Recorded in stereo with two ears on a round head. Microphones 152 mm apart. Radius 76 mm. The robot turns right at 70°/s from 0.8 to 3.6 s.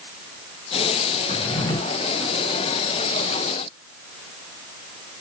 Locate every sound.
1.3 s a drawer: 130° left, 0.6 m; by 1.8 s 165° left, 0.6 m